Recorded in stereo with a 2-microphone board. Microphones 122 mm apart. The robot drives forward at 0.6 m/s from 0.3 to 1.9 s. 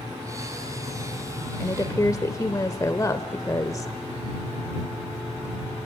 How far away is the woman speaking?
About 1.1 m.